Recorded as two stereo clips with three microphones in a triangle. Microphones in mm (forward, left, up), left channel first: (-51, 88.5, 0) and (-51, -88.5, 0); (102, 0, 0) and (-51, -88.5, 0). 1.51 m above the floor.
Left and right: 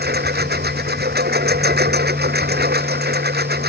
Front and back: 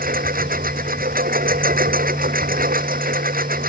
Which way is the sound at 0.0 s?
115° right.